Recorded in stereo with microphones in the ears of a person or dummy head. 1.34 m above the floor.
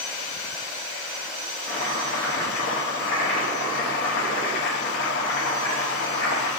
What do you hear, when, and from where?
1.7 s chopping: 60° left (ahead or behind), 0.8 m